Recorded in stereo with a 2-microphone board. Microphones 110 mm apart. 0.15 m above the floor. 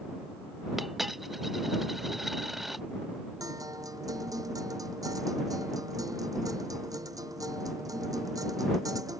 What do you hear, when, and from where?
0.8 s a dropped coin: centre (ahead or behind)
3.4 s a guitar: 30° right (ahead or behind)